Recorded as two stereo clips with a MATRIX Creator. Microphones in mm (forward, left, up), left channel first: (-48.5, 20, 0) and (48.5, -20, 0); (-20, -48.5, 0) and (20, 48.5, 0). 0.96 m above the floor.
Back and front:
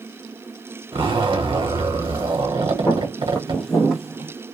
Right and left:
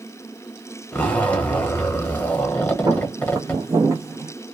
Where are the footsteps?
100° left, 1.2 m; by 4.3 s 35° left, 1.0 m.